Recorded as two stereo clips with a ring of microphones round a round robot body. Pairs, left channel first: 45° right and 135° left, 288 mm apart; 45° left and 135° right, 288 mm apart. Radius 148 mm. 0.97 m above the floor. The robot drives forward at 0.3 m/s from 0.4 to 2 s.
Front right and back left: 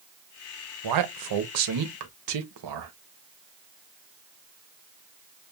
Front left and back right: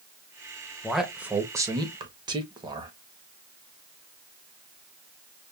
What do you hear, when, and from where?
0.8 s a man speaking: 135° left, 0.7 m; by 2.9 s 150° left, 0.9 m